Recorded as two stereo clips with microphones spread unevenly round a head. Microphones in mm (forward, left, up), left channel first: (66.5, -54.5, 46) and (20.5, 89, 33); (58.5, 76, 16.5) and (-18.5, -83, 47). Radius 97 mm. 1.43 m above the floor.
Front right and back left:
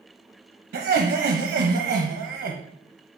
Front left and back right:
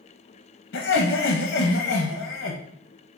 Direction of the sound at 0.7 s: 85° left.